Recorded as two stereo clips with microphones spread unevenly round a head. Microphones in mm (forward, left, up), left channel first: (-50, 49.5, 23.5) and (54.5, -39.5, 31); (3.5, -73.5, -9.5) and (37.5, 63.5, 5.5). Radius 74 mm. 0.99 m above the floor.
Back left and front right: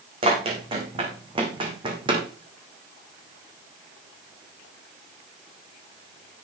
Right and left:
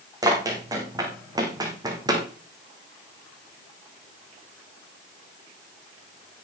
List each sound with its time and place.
0.2 s running footsteps: 10° left, 5 m; by 2.3 s 15° left, 3.5 m